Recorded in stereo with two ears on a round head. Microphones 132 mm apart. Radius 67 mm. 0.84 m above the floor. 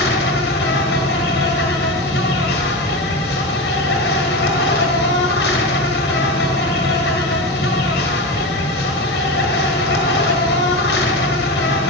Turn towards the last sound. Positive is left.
turn(degrees=80)